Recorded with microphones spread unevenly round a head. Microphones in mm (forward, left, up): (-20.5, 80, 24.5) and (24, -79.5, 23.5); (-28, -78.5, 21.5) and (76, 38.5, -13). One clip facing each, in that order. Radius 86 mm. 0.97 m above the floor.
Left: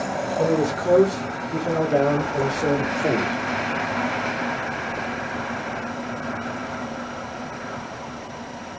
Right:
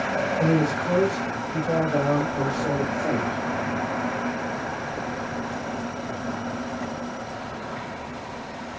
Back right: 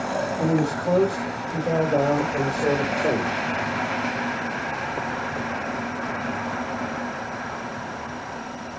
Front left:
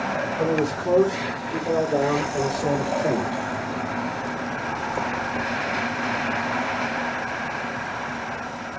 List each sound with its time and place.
0.4 s a man speaking: 130° left, 4.5 m; by 3.4 s 150° left, 3 m